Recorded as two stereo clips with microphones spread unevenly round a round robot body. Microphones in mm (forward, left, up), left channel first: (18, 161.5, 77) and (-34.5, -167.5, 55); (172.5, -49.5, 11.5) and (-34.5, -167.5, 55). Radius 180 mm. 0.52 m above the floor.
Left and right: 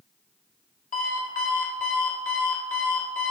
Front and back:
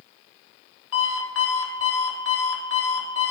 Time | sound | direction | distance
0.9 | an alarm clock | 15° left | 1.3 m